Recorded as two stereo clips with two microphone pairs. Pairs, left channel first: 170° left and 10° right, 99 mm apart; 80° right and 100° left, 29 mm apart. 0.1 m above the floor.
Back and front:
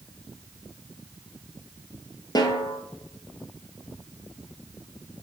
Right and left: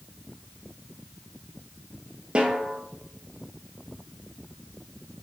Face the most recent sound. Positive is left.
turn(degrees=140)